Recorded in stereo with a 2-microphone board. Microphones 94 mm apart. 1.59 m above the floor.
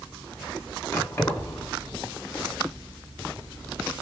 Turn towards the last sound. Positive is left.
turn(degrees=25)  # may be behind; listen again after turning